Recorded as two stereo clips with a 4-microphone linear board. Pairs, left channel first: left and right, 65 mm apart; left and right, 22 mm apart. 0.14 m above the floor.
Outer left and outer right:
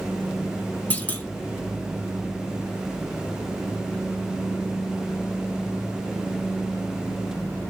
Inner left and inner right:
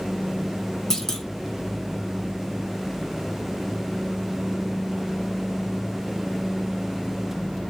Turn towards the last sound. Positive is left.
turn(degrees=25)  # may be behind; listen again after turning